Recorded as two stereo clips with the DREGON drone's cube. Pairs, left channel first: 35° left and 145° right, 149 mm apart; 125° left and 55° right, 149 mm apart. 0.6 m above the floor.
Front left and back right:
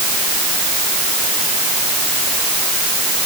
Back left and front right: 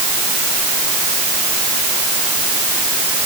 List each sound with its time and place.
Only background noise.